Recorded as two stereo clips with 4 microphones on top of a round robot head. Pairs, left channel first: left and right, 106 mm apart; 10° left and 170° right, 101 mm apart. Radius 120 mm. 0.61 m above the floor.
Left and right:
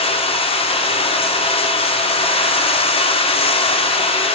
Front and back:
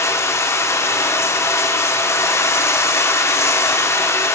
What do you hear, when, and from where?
0.0 s running water: 75° left, 1.6 m